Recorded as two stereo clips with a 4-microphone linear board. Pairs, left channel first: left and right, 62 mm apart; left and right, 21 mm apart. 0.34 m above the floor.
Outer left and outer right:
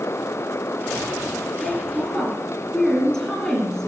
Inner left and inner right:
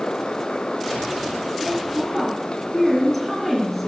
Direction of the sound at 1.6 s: 10° left (ahead or behind).